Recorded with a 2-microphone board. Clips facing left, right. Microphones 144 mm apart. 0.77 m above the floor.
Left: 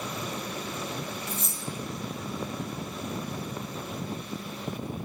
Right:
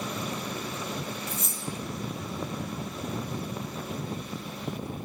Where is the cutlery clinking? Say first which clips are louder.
Even; 30° left (ahead or behind), 0.6 m.